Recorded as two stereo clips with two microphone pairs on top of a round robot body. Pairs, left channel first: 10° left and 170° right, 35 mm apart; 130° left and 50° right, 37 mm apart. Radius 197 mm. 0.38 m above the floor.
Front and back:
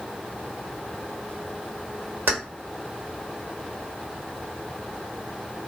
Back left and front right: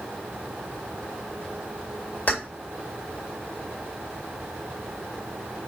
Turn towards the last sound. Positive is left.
turn(degrees=175)